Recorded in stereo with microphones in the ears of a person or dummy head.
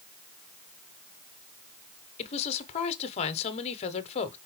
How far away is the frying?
No frying in this recording.